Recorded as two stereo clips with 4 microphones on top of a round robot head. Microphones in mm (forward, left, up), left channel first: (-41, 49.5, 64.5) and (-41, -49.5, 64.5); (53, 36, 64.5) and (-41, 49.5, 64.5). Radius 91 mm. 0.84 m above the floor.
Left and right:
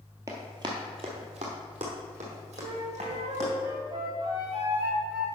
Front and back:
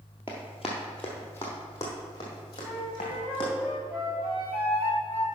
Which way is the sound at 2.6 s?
115° right.